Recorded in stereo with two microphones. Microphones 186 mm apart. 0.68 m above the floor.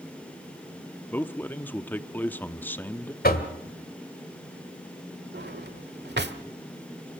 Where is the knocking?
55° left (ahead or behind), 1.8 m.